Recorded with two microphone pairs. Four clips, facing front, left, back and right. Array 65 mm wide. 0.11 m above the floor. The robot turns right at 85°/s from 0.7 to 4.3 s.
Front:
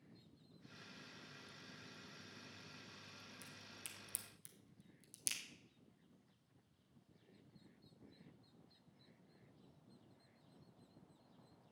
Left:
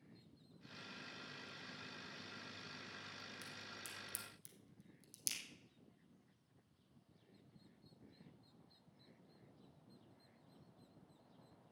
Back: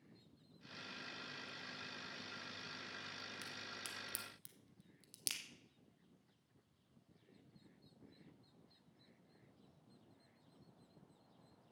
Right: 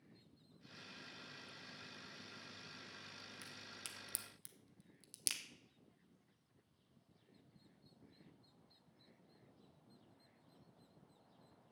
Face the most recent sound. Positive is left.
turn(degrees=-120)